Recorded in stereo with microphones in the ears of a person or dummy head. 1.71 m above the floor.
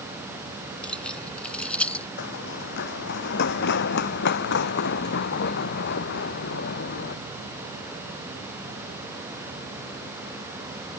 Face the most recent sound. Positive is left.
turn(degrees=50)  # may be behind; listen again after turning